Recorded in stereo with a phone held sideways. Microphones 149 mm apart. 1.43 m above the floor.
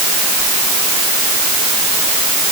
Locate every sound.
Only background noise.